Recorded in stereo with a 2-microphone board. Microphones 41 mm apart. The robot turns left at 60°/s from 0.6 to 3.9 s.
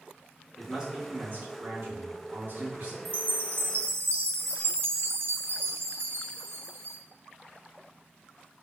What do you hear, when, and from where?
0.6 s a man speaking: 10° right, 1.7 m; by 3.0 s 150° right, 1.7 m
3.0 s a chime: 50° right, 0.6 m; by 7.0 s 100° right, 0.6 m